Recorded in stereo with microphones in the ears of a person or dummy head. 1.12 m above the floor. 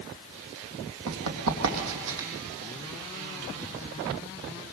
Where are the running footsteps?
70° right (ahead or behind), 3.5 m; by 2.3 s 65° right (ahead or behind), 3.5 m.